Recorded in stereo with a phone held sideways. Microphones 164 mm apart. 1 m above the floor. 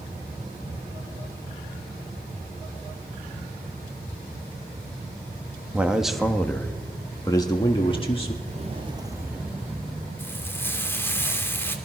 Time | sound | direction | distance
5.7 | a man speaking | 10° right (ahead or behind) | 1.6 m
8.4 | footsteps | 45° right (ahead or behind) | 1.7 m
10.2 | frying | 15° left (ahead or behind) | 2.5 m